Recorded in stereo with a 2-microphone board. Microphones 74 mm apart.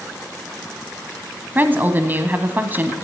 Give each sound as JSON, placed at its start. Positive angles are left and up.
{"t": 1.6, "sound": "a woman speaking", "side_deg": -25, "distance_m": 1.1}